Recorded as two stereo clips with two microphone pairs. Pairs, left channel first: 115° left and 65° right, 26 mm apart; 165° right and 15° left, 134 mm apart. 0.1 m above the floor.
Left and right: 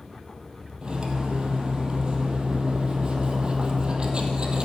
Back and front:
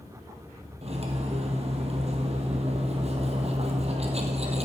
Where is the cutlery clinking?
15° right, 2 m.